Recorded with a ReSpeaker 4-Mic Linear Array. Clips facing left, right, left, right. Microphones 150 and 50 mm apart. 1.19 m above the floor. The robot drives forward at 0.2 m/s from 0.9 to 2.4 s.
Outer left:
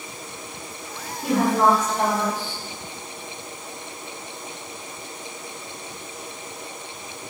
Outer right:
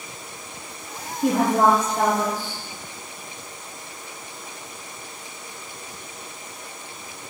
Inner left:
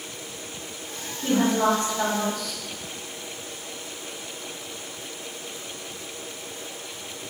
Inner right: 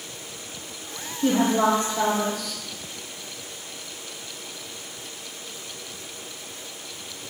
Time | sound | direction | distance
1.2 | a woman speaking | 50° right (ahead or behind) | 0.7 m